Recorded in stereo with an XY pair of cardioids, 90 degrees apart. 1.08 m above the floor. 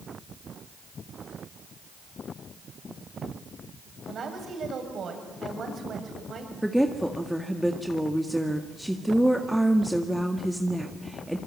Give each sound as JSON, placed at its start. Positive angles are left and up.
{"t": 4.1, "sound": "a woman speaking", "azimuth_deg": -55, "distance_m": 7.0}
{"t": 6.6, "sound": "a woman speaking", "azimuth_deg": 0, "distance_m": 1.9}